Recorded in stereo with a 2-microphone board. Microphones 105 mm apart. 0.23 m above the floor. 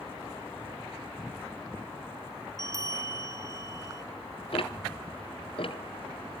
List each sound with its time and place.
2.6 s a bell: 30° right (ahead or behind), 0.8 m
4.5 s ticking: 60° left (ahead or behind), 1.3 m